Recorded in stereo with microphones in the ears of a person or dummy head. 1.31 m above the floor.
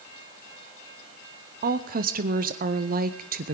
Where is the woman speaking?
40° right (ahead or behind), 0.6 m.